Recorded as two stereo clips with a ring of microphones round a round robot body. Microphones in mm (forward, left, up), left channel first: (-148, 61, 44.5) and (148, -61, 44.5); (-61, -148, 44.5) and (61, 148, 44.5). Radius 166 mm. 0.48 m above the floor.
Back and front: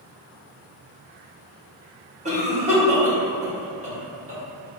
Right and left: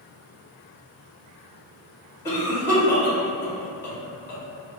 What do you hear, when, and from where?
2.2 s a cough: 40° right, 1.1 m